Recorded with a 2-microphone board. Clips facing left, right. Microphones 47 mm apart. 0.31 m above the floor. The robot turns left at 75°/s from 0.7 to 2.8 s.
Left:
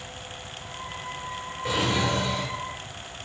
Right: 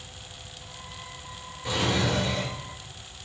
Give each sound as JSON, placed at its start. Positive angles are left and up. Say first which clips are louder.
{"t": 1.6, "sound": "a drawer", "louder": "left 1 dB", "azimuth_deg": 15, "distance_m": 3.5}